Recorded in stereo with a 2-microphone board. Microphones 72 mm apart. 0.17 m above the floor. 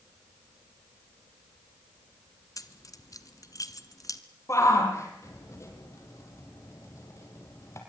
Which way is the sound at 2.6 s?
50° left (ahead or behind).